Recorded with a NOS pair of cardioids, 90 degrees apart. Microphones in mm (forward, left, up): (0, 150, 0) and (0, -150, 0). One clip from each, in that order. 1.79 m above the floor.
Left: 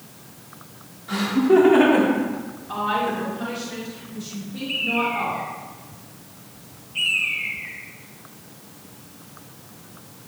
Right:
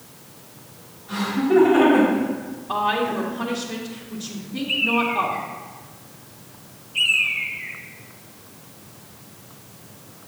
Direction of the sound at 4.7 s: 20° right.